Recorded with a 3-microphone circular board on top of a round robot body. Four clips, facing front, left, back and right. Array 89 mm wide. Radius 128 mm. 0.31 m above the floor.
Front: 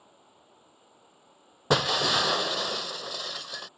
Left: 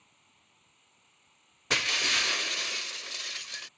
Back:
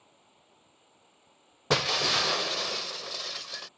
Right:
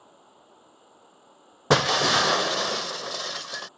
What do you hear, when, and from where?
0.0 s an insect: 75° right
1.7 s breaking glass: 80° right